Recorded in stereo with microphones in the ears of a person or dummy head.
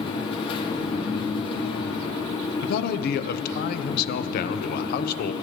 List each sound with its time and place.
0.0 s a fan: 25° left (ahead or behind), 1.4 m
2.6 s a man speaking: 55° left (ahead or behind), 0.7 m